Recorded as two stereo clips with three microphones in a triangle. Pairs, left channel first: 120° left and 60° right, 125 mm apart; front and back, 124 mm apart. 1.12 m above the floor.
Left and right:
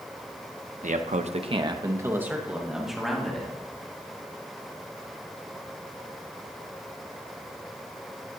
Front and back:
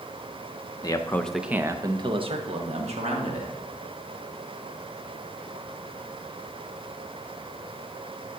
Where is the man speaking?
60° right, 0.7 m; by 3.5 s 155° right, 1.7 m.